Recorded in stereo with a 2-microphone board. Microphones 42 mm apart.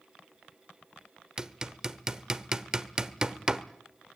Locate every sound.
1.4 s hammering: 15° right (ahead or behind), 0.9 m